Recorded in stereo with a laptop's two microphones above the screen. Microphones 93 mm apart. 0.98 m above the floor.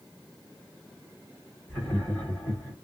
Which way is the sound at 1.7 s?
20° left (ahead or behind).